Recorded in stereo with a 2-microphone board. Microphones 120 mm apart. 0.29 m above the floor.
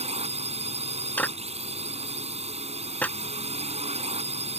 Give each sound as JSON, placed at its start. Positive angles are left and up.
{"t": 0.0, "sound": "a drone", "side_deg": -65}
{"t": 1.2, "sound": "a clap", "side_deg": 15}